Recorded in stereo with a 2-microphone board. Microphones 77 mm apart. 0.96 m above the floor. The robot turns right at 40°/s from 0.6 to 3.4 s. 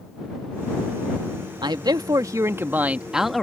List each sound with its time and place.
1.6 s a man speaking: 70° right; by 3.4 s 5° left